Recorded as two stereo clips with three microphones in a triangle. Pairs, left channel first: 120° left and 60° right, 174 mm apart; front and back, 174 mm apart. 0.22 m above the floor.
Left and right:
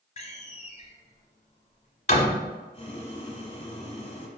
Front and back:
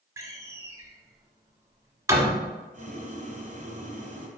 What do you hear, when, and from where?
0.2 s a door slam: 120° left, 0.9 m
2.7 s boiling: 165° left, 1.1 m